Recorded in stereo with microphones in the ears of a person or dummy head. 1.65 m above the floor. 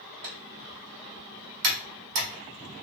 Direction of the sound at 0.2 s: 45° right (ahead or behind).